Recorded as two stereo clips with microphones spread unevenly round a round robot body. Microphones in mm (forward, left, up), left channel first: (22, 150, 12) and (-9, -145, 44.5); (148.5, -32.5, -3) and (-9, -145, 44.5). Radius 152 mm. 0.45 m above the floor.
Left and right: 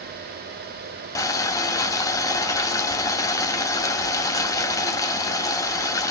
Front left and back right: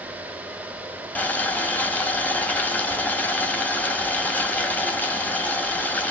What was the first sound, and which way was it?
Boiling, 45° left.